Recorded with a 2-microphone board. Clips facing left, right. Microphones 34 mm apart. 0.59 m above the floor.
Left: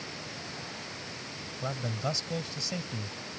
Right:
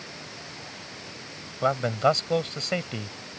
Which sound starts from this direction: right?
A man speaking, at 1.6 s.